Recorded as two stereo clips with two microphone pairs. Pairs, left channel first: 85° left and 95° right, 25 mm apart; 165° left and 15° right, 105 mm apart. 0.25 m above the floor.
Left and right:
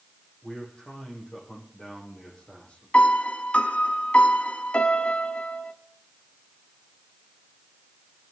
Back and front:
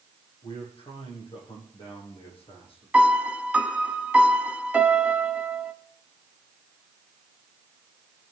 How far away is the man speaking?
About 10 m.